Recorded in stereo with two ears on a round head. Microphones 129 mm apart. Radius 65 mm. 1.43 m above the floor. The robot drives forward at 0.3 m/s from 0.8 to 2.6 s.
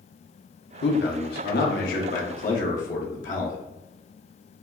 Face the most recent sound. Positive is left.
turn(degrees=60)  # may be behind; listen again after turning